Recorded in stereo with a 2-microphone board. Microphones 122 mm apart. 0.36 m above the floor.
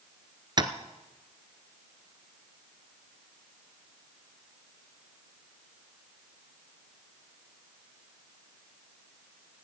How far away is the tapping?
About 0.9 m.